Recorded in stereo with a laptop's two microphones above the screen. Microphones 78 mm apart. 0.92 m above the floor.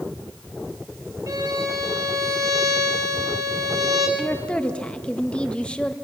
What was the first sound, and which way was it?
A violin, 50° right (ahead or behind).